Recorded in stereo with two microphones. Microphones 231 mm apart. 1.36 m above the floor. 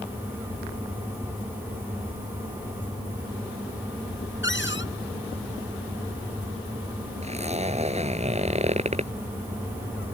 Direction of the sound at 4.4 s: 55° left (ahead or behind).